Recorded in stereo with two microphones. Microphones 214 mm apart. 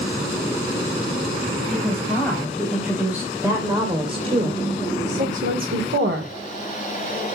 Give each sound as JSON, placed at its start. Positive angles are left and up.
{"t": 1.7, "sound": "a woman speaking", "side_deg": 5, "distance_m": 5.0}